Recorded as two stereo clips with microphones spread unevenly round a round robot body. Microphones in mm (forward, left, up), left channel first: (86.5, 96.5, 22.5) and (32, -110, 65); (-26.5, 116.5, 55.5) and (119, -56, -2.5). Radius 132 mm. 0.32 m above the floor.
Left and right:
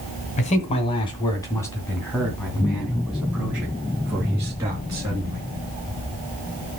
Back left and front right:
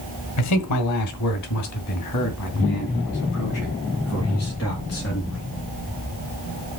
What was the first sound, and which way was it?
A man speaking, 125° left.